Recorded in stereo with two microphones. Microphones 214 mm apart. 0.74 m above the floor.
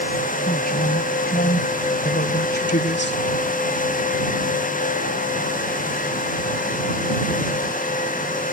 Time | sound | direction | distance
0.5 | a man speaking | 45° left (ahead or behind) | ?